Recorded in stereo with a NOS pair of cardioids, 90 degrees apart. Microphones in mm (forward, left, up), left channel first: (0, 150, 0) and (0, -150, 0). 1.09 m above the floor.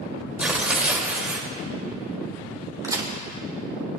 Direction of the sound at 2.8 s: 15° right.